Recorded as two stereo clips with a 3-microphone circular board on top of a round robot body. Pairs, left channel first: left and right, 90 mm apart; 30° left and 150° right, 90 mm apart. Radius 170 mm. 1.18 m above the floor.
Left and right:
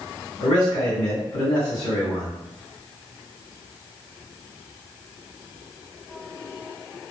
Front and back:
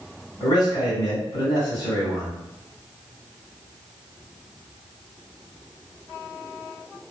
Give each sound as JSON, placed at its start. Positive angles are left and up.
{"t": 0.4, "sound": "a man speaking", "azimuth_deg": 65, "distance_m": 1.7}